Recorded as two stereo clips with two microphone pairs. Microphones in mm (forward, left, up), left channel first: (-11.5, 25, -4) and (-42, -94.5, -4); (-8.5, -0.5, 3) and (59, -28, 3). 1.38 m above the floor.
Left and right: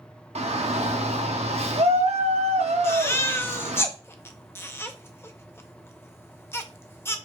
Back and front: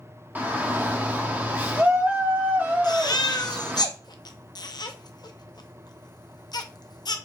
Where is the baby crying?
150° left, 0.5 m.